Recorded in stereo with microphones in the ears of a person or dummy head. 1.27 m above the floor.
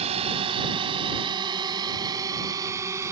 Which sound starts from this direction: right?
A drone, at 0.0 s.